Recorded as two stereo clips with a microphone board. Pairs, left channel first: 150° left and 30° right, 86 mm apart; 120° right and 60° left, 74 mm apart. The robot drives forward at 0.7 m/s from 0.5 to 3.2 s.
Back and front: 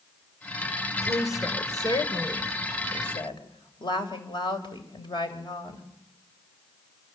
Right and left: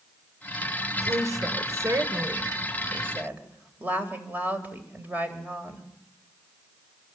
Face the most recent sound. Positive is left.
turn(degrees=125)